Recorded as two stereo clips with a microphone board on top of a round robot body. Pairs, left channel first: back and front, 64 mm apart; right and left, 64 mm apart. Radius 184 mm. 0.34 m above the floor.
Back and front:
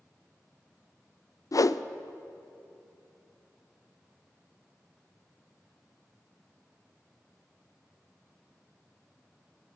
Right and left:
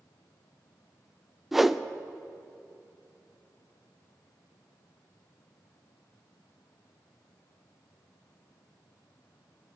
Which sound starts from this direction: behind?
A whoosh, at 1.5 s.